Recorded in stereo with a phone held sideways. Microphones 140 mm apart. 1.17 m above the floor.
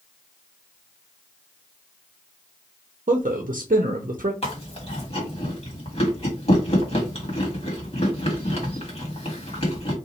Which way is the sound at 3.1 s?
70° right (ahead or behind).